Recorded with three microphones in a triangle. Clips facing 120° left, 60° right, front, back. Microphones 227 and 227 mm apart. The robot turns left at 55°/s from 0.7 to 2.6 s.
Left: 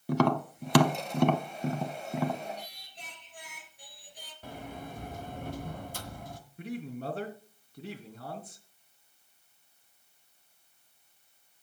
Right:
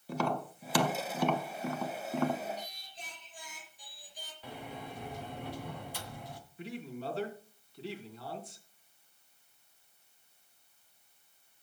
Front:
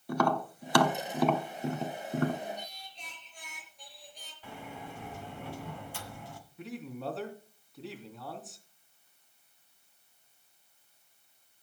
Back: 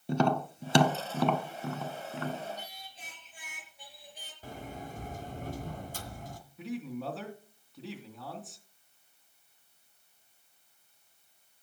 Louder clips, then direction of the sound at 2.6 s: Even, front 1 dB; 100° left.